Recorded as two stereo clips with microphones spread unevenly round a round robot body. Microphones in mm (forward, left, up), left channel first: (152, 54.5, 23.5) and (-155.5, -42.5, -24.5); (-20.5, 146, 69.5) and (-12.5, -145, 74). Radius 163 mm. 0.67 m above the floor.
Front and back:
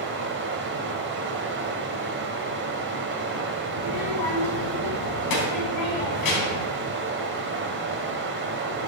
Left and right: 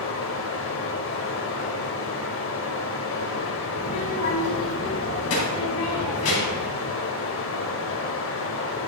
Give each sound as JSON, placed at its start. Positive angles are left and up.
{"t": 0.0, "sound": "running water", "azimuth_deg": 140, "distance_m": 1.1}
{"t": 3.8, "sound": "a child speaking", "azimuth_deg": 45, "distance_m": 4.0}